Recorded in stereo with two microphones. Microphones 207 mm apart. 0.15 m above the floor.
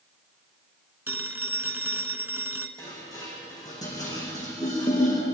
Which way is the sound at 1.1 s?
10° right (ahead or behind).